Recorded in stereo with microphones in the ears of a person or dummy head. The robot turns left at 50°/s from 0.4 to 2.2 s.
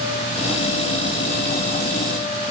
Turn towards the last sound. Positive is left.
No sound to turn to.